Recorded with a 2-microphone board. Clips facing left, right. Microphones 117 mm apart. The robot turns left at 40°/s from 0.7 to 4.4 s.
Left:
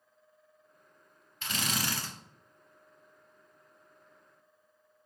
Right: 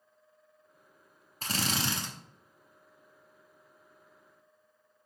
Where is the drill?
40° right (ahead or behind), 0.6 m; by 2.1 s 15° right (ahead or behind), 0.6 m.